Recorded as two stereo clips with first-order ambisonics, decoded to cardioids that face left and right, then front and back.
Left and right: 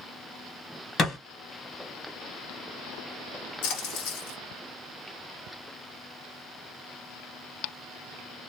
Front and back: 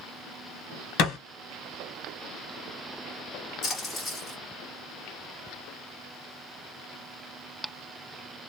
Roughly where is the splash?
Left.